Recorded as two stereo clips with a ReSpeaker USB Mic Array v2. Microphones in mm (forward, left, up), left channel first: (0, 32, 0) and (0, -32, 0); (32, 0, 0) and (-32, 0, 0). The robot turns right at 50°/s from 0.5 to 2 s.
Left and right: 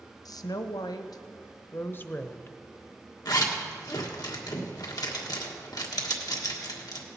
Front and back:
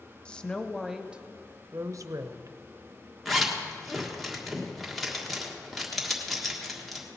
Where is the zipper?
90° left, 1.5 m.